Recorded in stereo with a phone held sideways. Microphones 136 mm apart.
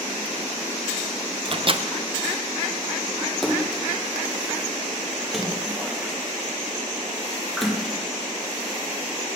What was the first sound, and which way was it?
A microwave, 40° right (ahead or behind).